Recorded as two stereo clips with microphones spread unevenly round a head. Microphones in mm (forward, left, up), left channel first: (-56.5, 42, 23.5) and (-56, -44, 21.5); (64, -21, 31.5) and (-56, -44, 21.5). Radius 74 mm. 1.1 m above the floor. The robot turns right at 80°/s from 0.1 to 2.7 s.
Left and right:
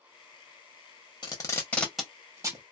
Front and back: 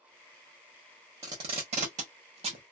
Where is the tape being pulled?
125° left, 1.2 m; by 2.6 s 125° right, 1.2 m.